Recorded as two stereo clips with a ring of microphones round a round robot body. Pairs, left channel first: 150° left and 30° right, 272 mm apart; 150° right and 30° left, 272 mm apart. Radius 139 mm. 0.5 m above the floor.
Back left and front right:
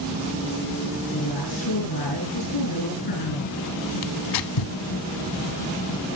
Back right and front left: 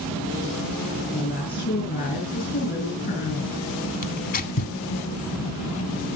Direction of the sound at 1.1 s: 150° left.